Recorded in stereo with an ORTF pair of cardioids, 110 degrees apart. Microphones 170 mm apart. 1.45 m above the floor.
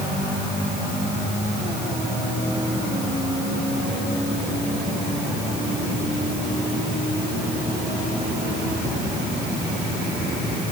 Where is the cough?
No cough in this recording.